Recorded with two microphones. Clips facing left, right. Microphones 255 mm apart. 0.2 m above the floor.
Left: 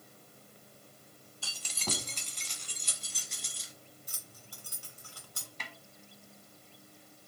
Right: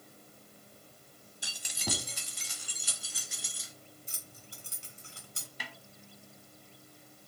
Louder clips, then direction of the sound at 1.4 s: Right 1 dB; 15° right (ahead or behind).